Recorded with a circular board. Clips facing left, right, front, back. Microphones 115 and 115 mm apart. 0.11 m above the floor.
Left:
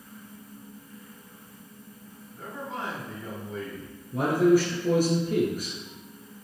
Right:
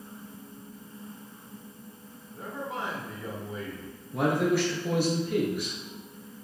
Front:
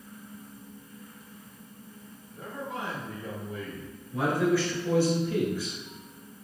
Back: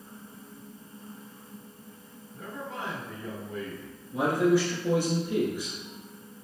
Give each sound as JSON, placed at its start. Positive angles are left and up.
{"t": 2.3, "sound": "a man speaking", "azimuth_deg": -20, "distance_m": 1.6}
{"t": 4.1, "sound": "a man speaking", "azimuth_deg": 110, "distance_m": 1.7}